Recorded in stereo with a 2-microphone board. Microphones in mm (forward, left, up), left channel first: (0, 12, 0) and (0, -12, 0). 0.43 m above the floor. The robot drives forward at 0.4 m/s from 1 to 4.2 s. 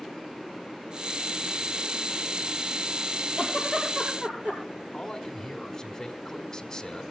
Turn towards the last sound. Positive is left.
turn(degrees=25)  # may be behind; listen again after turning